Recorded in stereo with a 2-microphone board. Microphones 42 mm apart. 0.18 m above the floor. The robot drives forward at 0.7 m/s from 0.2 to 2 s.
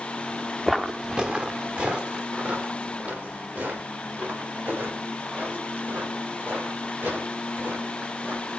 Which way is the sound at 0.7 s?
Centre (ahead or behind).